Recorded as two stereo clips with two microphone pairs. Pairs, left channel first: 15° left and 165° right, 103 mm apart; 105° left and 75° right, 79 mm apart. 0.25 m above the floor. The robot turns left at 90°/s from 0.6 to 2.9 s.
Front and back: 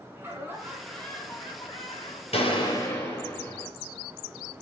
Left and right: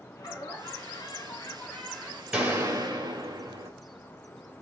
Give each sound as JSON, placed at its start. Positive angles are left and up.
{"t": 0.2, "sound": "laughter", "azimuth_deg": 130, "distance_m": 2.5}
{"t": 2.3, "sound": "a gunshot", "azimuth_deg": 0, "distance_m": 3.5}